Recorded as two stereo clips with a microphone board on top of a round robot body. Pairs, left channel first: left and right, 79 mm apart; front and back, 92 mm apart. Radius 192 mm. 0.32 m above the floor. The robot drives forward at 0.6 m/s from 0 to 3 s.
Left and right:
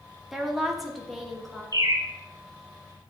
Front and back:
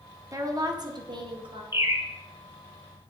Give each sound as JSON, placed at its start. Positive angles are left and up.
{"t": 0.3, "sound": "a woman speaking", "azimuth_deg": -175, "distance_m": 1.1}
{"t": 1.7, "sound": "a bird", "azimuth_deg": -115, "distance_m": 1.0}